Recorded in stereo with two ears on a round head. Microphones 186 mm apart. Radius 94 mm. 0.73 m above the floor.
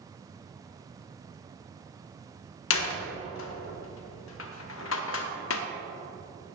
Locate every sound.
2.7 s a door slam: 65° left (ahead or behind), 0.9 m